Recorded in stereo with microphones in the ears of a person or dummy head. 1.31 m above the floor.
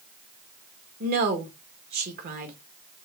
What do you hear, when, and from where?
1.0 s a woman speaking: 50° right (ahead or behind), 1.3 m